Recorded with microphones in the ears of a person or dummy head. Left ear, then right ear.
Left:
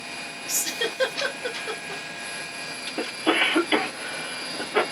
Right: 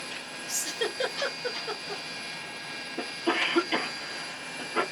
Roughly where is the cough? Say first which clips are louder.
Left 6 dB; left.